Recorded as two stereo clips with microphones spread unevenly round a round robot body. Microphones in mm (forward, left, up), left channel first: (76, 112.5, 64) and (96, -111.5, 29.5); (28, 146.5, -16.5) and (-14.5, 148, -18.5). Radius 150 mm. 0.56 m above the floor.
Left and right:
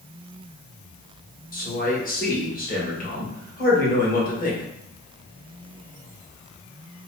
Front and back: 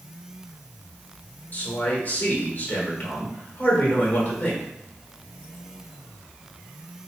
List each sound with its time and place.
1.5 s a man speaking: 40° left, 1.4 m